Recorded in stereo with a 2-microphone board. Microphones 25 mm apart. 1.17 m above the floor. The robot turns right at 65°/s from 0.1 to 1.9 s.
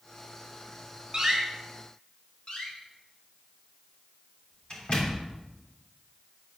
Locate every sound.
1.1 s a door slam: 35° right (ahead or behind), 5 m; by 1.4 s 15° right (ahead or behind), 5 m
2.5 s a door slam: 35° left (ahead or behind), 3 m